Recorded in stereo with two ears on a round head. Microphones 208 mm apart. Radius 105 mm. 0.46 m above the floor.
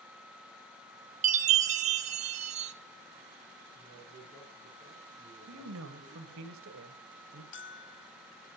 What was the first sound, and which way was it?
A chime, 30° right (ahead or behind).